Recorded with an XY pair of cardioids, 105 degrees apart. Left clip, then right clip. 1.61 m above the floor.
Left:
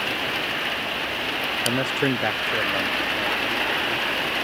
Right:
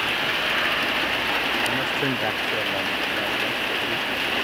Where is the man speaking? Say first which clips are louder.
Even; 55° left, 0.6 m; by 4.2 s 10° right, 2.5 m.